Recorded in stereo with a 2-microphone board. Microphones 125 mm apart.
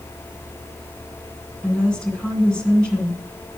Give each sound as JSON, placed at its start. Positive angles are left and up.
{"t": 1.6, "sound": "a woman speaking", "side_deg": 5, "distance_m": 1.8}